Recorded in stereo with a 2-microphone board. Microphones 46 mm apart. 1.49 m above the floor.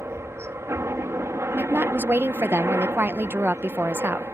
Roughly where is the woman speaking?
Right.